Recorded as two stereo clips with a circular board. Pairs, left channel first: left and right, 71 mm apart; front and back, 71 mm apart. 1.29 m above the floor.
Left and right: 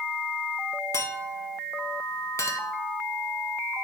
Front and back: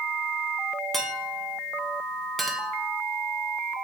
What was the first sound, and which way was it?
A clink, 85° left.